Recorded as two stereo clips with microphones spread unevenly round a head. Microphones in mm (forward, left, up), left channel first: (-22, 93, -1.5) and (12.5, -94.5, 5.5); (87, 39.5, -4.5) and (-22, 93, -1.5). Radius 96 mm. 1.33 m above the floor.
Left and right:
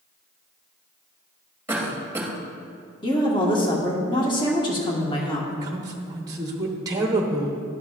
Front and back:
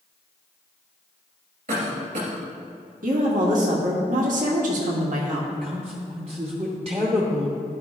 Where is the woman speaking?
165° left, 1.4 m.